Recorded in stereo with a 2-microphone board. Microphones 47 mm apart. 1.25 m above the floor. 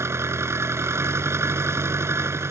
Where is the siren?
No siren in this recording.